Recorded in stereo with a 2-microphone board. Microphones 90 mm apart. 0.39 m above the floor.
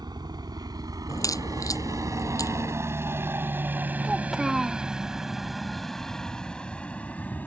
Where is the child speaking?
5° right (ahead or behind).